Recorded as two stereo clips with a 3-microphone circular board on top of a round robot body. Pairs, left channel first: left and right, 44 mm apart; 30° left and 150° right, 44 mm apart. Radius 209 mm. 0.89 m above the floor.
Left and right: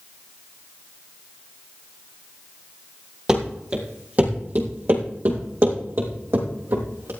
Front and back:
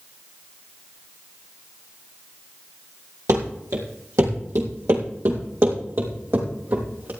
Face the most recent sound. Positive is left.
turn(degrees=-110)